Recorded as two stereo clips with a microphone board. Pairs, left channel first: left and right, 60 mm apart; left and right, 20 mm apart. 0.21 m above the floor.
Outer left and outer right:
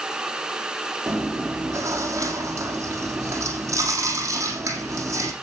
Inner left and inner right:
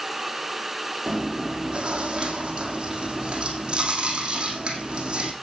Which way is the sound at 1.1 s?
55° right (ahead or behind).